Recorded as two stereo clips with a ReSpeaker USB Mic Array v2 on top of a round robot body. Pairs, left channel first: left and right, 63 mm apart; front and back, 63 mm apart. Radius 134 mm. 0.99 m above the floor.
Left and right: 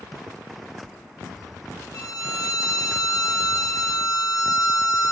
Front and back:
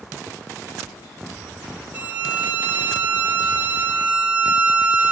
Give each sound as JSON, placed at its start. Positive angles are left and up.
{"t": 1.9, "sound": "a violin", "azimuth_deg": 115, "distance_m": 0.9}